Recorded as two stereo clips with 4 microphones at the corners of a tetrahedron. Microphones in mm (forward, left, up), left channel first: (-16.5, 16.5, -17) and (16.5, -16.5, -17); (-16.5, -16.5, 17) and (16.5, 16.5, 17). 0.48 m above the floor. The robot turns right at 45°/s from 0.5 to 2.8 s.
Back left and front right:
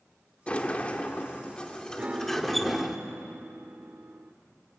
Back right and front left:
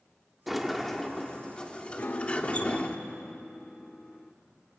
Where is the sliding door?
125° left, 1.3 m; by 3.0 s 130° right, 1.3 m.